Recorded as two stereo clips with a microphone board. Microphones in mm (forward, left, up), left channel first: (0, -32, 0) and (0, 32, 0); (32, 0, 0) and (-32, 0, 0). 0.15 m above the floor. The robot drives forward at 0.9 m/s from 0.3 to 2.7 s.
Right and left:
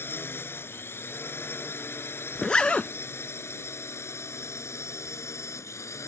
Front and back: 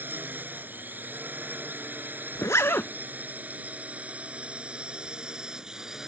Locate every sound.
0.0 s a drone: 130° right; by 6.1 s 100° right
2.4 s a zipper: 15° right; by 2.9 s 25° right